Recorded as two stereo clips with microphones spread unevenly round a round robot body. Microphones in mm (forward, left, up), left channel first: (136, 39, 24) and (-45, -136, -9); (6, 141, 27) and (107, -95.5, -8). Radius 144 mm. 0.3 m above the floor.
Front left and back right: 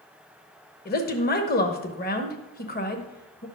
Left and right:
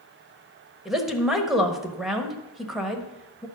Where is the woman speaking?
10° left, 1.2 m.